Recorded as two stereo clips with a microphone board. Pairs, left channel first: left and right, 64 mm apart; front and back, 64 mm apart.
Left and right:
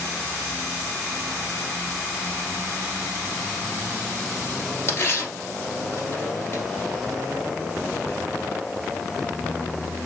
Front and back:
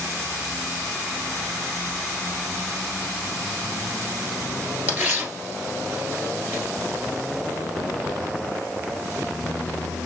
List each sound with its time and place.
4.9 s tearing paper: 135° left, 1.9 m